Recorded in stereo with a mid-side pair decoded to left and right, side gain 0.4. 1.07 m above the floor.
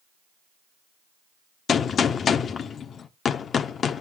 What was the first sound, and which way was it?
A gunshot, 60° left.